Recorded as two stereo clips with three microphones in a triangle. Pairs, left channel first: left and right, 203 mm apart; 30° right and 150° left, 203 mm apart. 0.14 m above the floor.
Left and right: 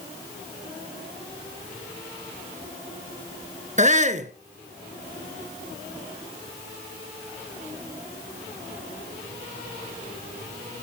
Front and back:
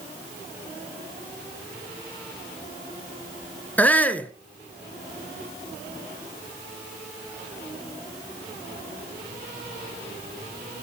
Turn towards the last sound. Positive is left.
turn(degrees=-110)